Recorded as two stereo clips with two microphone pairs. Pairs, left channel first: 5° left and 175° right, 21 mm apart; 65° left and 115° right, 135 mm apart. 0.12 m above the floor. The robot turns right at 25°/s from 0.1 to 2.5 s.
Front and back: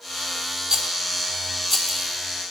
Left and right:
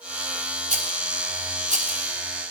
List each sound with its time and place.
0.7 s a rattle: 120° right, 1.0 m; by 2.0 s 90° right, 1.0 m